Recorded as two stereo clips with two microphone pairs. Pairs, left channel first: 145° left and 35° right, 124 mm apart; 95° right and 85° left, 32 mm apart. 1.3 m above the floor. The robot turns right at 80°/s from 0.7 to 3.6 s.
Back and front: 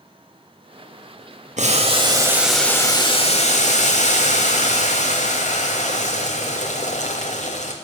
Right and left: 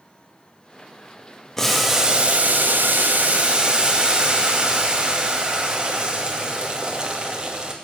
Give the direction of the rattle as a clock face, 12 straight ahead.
No rattle in this recording.